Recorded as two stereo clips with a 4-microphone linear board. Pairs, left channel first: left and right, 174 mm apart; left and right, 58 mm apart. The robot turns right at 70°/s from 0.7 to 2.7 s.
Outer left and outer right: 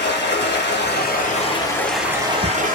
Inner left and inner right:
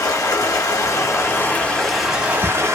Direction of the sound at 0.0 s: 90° left.